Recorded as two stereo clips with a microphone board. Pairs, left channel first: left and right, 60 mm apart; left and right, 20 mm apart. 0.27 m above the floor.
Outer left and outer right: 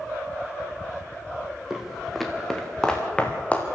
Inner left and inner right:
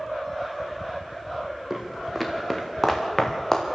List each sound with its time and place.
1.7 s footsteps: 10° right (ahead or behind), 3 m; by 3.7 s 25° left (ahead or behind), 3.5 m